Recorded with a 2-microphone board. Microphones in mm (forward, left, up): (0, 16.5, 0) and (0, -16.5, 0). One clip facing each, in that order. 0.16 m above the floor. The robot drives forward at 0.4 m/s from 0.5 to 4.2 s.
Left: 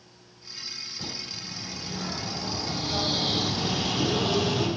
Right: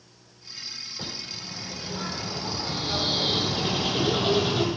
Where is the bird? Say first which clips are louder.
Right 1 dB; 30° right (ahead or behind), 5 m; by 4.7 s 40° right (ahead or behind), 4 m.